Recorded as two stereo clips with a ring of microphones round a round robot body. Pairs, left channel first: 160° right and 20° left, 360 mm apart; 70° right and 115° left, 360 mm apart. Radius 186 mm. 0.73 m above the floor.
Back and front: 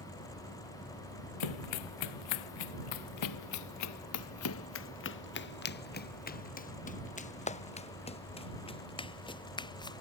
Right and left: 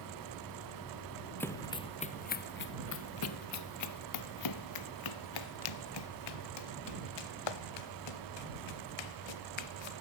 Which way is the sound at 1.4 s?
150° right.